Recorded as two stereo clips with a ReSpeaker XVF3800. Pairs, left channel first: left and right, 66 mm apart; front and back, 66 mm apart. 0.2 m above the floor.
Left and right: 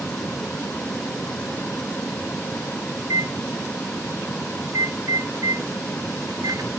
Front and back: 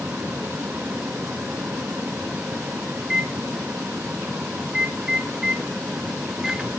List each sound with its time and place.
3.0 s a microwave: 105° right, 2 m